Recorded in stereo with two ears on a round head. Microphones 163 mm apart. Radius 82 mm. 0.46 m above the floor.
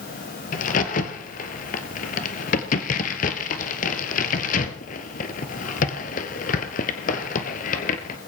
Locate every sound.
0.5 s a crack: 45° left (ahead or behind), 1.4 m